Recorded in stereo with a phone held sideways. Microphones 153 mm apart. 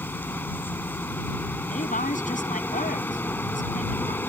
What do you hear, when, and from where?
0.0 s a machine running: 15° left (ahead or behind)
1.7 s a woman speaking: 55° left (ahead or behind)